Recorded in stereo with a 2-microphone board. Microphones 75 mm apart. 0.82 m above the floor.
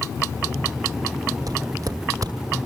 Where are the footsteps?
55° right (ahead or behind), 2 m.